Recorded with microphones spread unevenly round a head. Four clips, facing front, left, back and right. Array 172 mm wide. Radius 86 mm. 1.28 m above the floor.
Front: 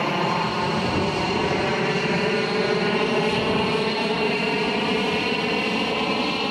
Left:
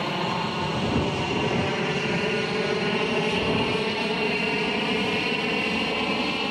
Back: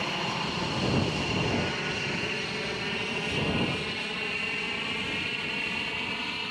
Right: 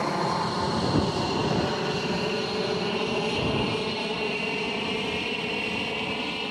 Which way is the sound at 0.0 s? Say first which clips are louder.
Right 1 dB, front 9 dB; 10° right.